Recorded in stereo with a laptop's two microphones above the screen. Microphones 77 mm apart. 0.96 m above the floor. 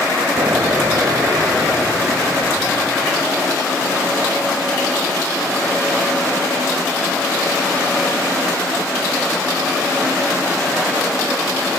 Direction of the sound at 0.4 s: 50° right (ahead or behind).